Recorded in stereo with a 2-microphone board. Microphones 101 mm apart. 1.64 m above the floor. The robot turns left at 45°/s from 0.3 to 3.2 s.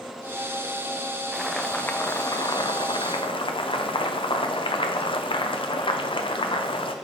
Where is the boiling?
175° right, 0.7 m; by 7.0 s 100° left, 0.7 m.